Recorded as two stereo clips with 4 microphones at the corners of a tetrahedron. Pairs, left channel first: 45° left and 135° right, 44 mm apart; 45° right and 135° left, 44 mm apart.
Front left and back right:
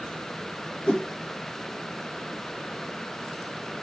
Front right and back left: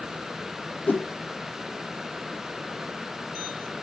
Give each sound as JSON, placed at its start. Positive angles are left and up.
{"t": 0.9, "sound": "a whoosh", "azimuth_deg": -20, "distance_m": 0.6}